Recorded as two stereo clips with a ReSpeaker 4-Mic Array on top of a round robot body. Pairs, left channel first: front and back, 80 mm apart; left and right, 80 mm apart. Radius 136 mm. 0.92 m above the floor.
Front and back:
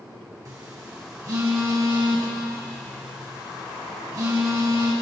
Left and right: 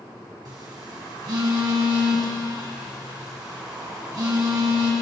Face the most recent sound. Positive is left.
turn(degrees=-135)